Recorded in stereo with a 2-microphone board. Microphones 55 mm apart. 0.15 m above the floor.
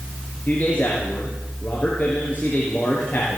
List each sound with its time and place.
0.5 s a man speaking: 35° left (ahead or behind), 3.5 m